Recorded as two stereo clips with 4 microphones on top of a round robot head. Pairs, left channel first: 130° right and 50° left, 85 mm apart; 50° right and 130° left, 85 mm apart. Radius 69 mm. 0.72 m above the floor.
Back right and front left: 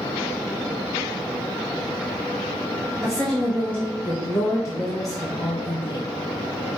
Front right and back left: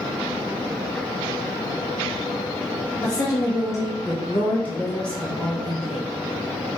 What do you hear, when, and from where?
3.0 s a woman speaking: 40° right, 1.3 m; by 6.1 s 145° right, 1.4 m